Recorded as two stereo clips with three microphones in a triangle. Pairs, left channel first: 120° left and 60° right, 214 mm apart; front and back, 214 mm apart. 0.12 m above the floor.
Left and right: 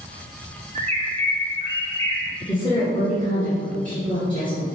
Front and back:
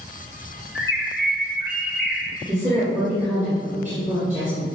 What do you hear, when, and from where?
0.8 s a bird: 5° right, 1.0 m
2.4 s a woman speaking: 170° left, 2.0 m